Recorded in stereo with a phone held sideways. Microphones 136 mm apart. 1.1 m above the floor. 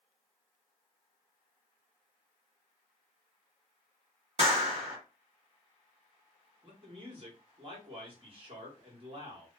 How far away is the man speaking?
About 1.3 m.